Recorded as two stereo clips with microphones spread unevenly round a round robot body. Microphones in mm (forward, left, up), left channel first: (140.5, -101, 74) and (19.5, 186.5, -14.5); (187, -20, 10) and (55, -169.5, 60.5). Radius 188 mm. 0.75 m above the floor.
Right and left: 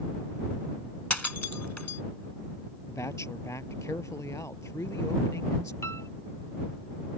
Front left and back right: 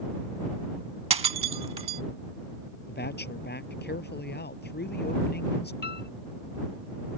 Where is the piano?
15° left.